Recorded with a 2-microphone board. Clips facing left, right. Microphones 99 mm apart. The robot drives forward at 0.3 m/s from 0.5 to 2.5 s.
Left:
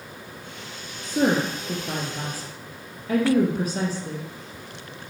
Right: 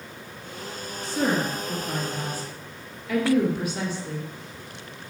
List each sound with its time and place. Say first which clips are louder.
1.0 s a woman speaking: left 3 dB; 45° left (ahead or behind), 1.7 m; by 4.3 s 40° left (ahead or behind), 1.9 m